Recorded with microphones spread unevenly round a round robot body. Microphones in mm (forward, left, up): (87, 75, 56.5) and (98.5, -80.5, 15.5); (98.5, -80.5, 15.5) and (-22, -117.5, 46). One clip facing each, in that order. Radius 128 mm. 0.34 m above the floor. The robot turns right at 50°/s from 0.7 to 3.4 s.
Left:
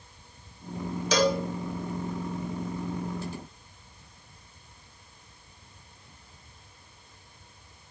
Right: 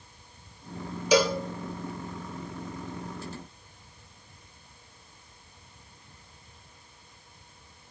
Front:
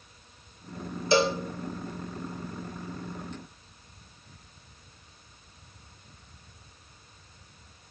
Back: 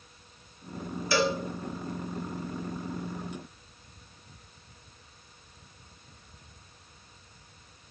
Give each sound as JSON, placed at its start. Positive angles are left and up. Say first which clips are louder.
{"t": 1.1, "sound": "a cowbell", "louder": "right 2 dB, front 3 dB", "azimuth_deg": -25, "distance_m": 1.3}